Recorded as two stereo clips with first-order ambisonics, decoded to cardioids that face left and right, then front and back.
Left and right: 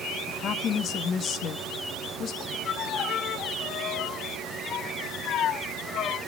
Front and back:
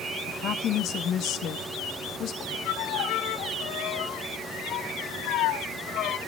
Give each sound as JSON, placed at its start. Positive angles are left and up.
{"t": 0.3, "sound": "a woman speaking", "azimuth_deg": 40, "distance_m": 0.8}
{"t": 2.6, "sound": "a violin", "azimuth_deg": 40, "distance_m": 1.0}